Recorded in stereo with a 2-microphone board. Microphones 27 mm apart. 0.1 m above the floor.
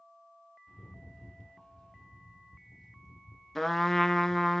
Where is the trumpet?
5° left (ahead or behind), 0.7 m.